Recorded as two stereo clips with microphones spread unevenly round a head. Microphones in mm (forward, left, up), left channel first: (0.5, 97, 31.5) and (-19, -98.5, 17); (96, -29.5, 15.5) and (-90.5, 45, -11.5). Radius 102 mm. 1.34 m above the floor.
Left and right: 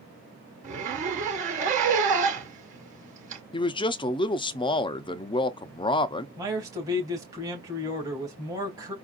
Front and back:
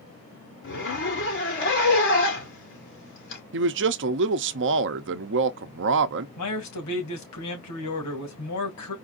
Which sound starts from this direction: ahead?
A man speaking, at 6.4 s.